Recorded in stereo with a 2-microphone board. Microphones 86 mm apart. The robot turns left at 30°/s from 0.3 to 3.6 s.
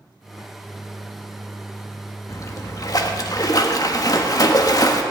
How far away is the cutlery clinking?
I don't hear cutlery clinking.